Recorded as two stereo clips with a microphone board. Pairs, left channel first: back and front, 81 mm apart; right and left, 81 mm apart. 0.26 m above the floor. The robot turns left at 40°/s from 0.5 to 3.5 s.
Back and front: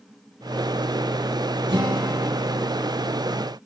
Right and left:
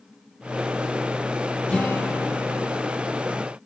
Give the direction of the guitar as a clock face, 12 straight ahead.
12 o'clock.